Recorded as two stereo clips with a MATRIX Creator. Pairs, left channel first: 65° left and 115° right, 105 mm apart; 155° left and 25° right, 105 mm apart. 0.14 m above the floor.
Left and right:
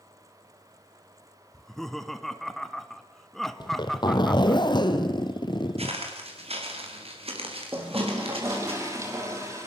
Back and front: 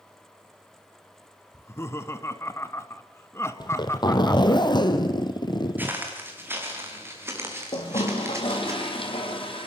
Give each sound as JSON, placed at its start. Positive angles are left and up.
{"t": 1.5, "sound": "laughter", "azimuth_deg": 150, "distance_m": 1.1}
{"t": 3.6, "sound": "a zipper", "azimuth_deg": 110, "distance_m": 1.7}
{"t": 5.8, "sound": "footsteps", "azimuth_deg": -95, "distance_m": 4.5}
{"t": 7.7, "sound": "a toilet flushing", "azimuth_deg": -175, "distance_m": 3.5}